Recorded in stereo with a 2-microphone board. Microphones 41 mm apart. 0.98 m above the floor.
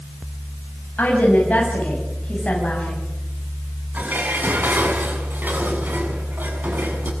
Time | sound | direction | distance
1.0 | a woman speaking | 40° left (ahead or behind) | 7 m
3.9 | dishes clattering | 50° right (ahead or behind) | 6.5 m